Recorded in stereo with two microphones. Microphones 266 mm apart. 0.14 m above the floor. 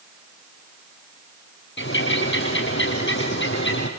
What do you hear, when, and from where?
1.8 s a bird: 45° left (ahead or behind), 3.5 m